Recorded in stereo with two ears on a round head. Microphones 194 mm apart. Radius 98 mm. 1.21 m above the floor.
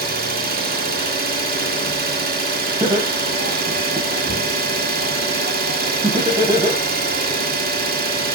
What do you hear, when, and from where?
0.0 s an engine running: 45° right (ahead or behind), 2.5 m
2.8 s laughter: 20° right (ahead or behind), 6.5 m